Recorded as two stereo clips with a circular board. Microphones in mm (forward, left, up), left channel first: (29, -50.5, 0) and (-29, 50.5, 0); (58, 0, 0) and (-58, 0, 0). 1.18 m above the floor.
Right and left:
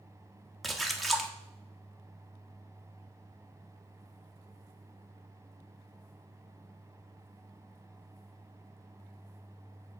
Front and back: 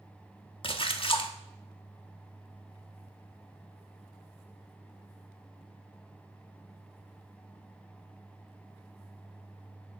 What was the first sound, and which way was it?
A splash, 30° left.